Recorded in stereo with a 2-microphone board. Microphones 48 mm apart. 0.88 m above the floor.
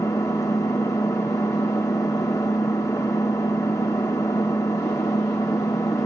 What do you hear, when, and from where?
0.0 s an engine running: 90° left, 1.1 m